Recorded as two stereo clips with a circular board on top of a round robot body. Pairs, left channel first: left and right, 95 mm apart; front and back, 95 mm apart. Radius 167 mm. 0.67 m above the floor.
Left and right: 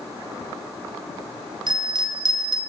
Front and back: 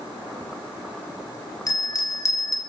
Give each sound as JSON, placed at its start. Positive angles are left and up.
{"t": 1.7, "sound": "a bell", "azimuth_deg": -50, "distance_m": 1.0}